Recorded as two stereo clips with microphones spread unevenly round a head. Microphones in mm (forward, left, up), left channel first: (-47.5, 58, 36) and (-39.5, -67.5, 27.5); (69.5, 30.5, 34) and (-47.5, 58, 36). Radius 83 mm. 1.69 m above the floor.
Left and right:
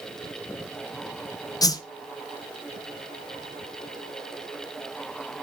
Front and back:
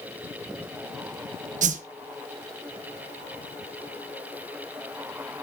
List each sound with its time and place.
1.6 s a whoosh: 155° left, 1.2 m